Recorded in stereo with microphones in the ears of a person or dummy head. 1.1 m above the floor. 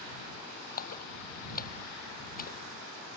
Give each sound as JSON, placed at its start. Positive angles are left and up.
{"t": 0.8, "sound": "a splash", "side_deg": 55}